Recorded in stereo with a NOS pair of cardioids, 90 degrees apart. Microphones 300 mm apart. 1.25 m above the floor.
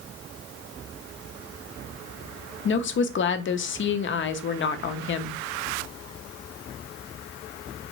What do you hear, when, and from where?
2.6 s a woman speaking: 40° left, 0.6 m